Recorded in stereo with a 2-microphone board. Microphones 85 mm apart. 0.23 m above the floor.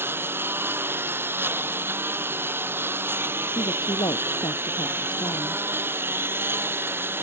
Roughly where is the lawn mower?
Right.